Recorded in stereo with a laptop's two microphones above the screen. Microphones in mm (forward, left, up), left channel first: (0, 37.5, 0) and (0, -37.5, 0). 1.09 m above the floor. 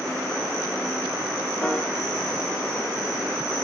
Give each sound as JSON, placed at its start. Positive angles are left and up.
{"t": 1.6, "sound": "a piano", "side_deg": 15, "distance_m": 2.0}